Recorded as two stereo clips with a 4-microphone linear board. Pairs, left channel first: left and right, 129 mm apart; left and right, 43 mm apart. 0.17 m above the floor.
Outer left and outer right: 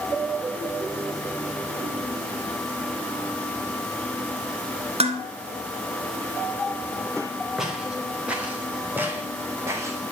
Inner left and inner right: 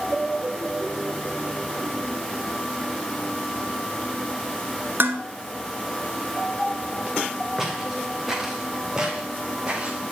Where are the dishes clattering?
55° right (ahead or behind), 1.9 m.